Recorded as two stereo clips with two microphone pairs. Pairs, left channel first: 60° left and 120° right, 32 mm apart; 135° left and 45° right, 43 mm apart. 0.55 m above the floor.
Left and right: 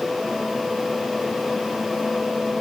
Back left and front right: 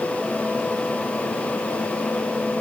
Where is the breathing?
I don't hear breathing.